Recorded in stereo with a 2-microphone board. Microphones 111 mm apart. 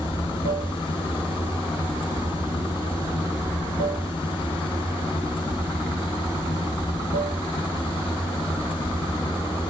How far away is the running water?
About 0.8 m.